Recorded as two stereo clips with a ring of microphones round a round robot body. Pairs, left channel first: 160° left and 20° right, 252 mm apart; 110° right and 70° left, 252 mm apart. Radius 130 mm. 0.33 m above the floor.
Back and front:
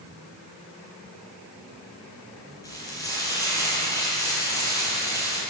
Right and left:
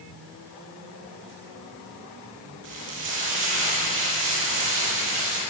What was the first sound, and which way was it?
Frying, 80° left.